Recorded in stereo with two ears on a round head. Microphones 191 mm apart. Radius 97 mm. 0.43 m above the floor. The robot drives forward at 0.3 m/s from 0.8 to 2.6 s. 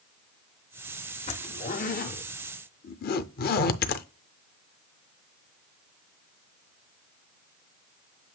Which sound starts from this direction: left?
A zipper, at 1.3 s.